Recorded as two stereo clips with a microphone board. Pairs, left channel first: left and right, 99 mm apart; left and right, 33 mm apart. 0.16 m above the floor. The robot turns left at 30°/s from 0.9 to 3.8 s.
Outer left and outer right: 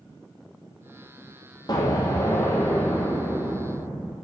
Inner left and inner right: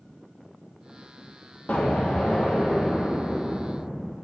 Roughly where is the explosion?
Ahead left.